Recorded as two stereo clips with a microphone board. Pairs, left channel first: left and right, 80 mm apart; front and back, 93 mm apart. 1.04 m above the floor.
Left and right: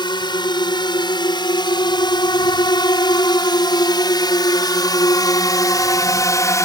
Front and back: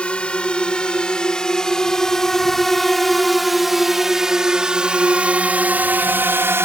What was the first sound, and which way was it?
A drone, 80° left.